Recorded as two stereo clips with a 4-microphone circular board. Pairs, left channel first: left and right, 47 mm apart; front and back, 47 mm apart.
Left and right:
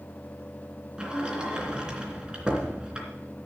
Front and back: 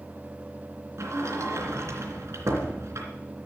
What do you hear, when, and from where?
1.0 s a sliding door: 165° right, 2.5 m